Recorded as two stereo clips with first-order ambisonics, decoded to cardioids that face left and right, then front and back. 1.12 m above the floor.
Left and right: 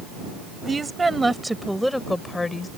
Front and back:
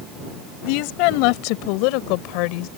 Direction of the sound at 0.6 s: 15° right.